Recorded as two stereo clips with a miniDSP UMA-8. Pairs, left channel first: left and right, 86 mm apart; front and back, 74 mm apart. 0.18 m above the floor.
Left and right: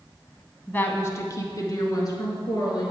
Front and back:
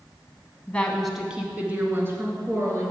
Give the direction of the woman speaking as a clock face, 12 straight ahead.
11 o'clock.